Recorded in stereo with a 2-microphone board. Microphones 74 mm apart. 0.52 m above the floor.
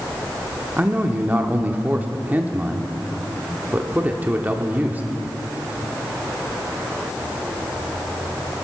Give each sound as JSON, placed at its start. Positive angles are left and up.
{"t": 0.8, "sound": "a man speaking", "side_deg": -20, "distance_m": 1.0}